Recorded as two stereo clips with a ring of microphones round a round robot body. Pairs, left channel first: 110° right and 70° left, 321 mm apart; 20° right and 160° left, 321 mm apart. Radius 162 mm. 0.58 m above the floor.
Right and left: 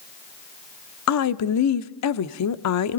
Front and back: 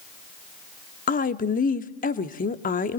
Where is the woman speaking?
85° right, 0.9 m.